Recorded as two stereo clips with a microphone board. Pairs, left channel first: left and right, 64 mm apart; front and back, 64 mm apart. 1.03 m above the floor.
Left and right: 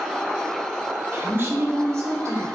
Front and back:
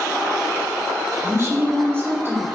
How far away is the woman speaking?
About 2.5 m.